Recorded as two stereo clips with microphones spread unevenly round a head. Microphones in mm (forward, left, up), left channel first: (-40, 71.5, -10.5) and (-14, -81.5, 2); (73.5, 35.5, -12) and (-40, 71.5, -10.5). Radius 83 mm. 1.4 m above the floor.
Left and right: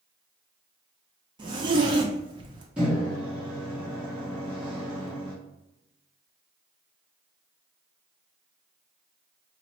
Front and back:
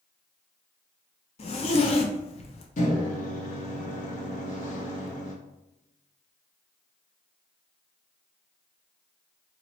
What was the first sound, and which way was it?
A zipper, 30° right.